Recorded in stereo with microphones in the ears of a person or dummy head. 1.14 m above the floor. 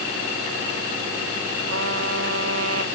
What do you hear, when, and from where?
1.7 s a trumpet: 90° right